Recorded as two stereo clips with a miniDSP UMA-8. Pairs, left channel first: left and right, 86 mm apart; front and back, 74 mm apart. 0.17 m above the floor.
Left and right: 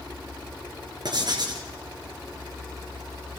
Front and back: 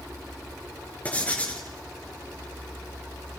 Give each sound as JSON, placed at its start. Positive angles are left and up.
{"t": 1.1, "sound": "writing", "azimuth_deg": -70, "distance_m": 3.5}